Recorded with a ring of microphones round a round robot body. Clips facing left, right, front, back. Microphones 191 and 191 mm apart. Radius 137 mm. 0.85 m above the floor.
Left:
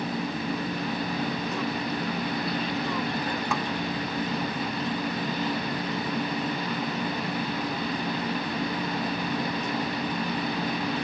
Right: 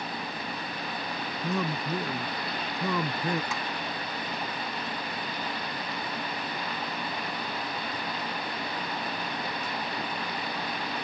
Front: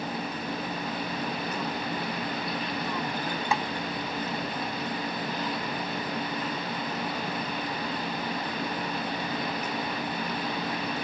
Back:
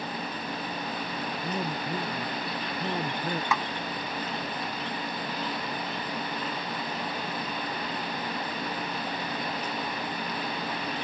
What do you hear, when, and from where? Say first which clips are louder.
0.0 s an insect: left 7 dB, front 2 dB; 80° left
1.4 s a man speaking: left 1 dB, even; 110° right
3.5 s a snare drum: left 7 dB, front 3 dB; 60° left